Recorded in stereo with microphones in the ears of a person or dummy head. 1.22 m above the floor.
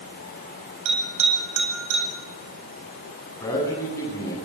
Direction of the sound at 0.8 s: 75° right (ahead or behind).